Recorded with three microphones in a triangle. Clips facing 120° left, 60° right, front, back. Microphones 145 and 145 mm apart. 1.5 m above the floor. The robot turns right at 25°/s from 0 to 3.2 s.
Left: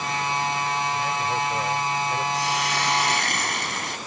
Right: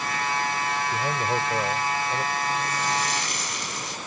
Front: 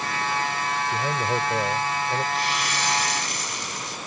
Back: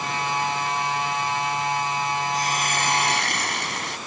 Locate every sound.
0.9 s a man speaking: 10° right; by 2.2 s 25° left
2.3 s a hiss: 130° left; by 4.0 s 150° left